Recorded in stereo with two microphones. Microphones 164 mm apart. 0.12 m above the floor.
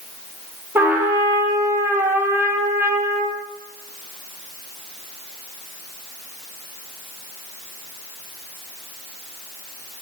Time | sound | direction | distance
0.8 | a trumpet | 15° right (ahead or behind) | 1.0 m